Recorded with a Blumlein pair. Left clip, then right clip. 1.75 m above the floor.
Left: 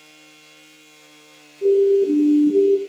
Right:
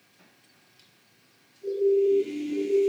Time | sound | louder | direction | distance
1.6 | a siren | left 7 dB | 45° left | 3.5 m